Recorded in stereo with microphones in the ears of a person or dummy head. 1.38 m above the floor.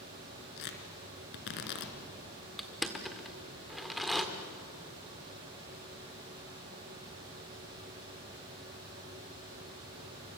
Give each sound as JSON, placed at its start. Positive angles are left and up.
{"t": 0.6, "sound": "tearing paper", "side_deg": 65, "distance_m": 3.0}
{"t": 2.6, "sound": "crushing", "side_deg": 0, "distance_m": 1.4}